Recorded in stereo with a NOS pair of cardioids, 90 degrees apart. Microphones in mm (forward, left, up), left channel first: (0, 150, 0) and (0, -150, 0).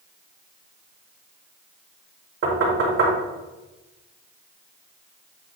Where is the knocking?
45° right, 3 m.